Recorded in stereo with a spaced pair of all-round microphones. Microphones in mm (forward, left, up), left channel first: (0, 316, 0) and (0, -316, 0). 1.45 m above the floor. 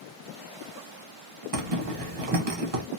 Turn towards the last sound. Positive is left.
turn(degrees=-60)  # may be behind; listen again after turning